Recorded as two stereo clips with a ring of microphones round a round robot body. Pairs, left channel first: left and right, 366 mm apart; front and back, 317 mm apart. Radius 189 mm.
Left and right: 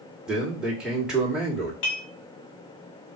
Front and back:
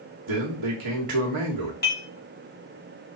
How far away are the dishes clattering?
About 2 m.